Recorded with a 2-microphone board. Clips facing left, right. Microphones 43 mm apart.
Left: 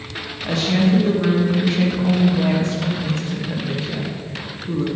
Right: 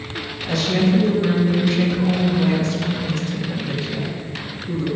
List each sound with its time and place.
0.4 s a woman speaking: 30° left (ahead or behind), 1.8 m